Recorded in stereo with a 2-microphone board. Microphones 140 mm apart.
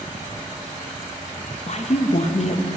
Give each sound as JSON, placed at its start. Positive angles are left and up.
{"t": 1.7, "sound": "a woman speaking", "side_deg": 55, "distance_m": 0.6}